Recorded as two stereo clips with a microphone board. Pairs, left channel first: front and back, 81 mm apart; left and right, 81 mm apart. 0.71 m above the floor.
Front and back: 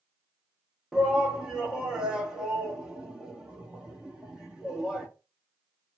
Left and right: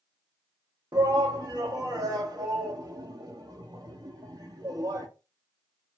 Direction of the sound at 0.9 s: 100° right.